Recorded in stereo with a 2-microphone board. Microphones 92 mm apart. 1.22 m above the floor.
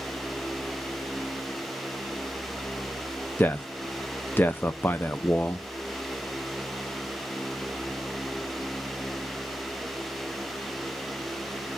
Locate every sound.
3.4 s a man speaking: 25° left (ahead or behind), 0.6 m